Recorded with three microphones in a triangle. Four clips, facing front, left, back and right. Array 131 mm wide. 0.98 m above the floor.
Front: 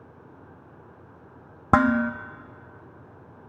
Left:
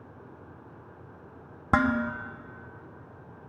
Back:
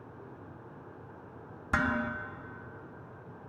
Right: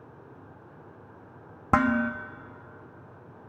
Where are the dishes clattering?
10° right, 0.9 m.